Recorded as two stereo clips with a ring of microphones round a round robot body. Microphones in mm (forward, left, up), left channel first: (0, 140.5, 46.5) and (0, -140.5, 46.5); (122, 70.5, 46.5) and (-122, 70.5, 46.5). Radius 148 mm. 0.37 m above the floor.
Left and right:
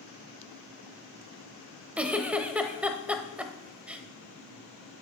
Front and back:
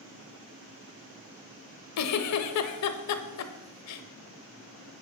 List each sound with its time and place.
2.0 s a giggle: 5° right, 0.8 m